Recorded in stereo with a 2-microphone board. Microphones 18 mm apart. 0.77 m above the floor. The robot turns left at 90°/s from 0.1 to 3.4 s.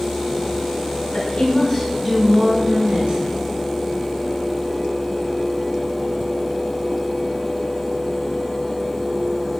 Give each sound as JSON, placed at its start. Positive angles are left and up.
{"t": 1.1, "sound": "a woman speaking", "azimuth_deg": 75, "distance_m": 6.0}